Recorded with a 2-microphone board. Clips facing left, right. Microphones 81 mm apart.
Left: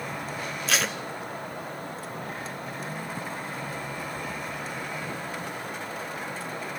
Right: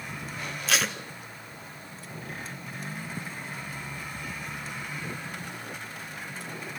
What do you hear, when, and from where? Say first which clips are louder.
0.7 s tape being pulled: even; centre (ahead or behind), 1.0 m